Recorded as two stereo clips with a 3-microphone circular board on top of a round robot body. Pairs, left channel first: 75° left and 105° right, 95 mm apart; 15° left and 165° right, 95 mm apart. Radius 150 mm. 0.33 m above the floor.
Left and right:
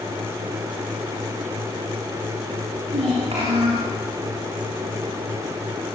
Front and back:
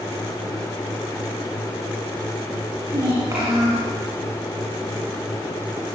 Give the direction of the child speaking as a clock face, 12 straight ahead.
4 o'clock.